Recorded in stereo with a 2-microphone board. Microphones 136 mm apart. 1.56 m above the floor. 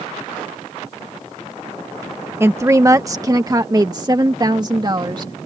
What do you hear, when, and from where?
2.4 s a woman speaking: 20° right (ahead or behind); by 5.3 s 35° right (ahead or behind)